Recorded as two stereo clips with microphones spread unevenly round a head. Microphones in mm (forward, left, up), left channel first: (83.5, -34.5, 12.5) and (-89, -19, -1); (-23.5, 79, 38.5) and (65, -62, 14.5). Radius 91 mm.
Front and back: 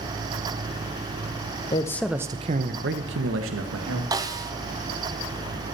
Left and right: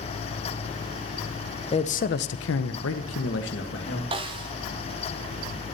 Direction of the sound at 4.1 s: 115° right.